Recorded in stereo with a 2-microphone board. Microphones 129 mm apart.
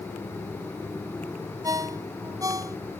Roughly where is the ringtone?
Right.